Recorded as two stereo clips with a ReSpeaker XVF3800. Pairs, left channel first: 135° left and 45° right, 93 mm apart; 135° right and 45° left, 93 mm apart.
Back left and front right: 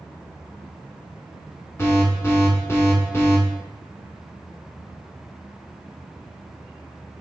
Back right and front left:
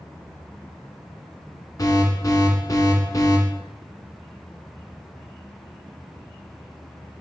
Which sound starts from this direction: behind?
An alarm, at 1.8 s.